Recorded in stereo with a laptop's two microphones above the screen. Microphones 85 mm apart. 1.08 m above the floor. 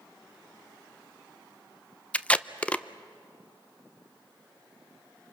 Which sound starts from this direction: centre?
Tape being pulled, at 2.1 s.